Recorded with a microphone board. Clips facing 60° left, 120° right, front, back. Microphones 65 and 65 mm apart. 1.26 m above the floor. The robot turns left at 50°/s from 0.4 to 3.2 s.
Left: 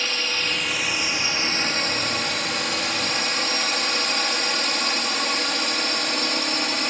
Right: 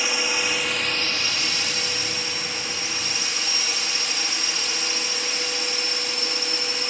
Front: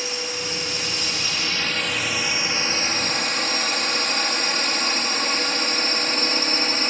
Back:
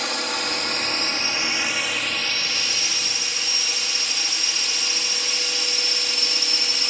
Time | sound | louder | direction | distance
0.0 | a drone | right 2 dB, back 3 dB | 160° left | ?